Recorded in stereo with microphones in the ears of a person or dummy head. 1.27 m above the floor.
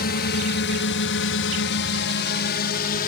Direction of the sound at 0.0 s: 50° left (ahead or behind).